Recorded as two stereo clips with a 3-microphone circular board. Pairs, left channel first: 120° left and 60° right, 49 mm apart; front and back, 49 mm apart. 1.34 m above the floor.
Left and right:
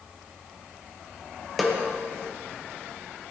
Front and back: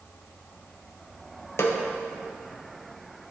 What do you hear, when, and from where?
1.6 s a snare drum: 30° left, 0.6 m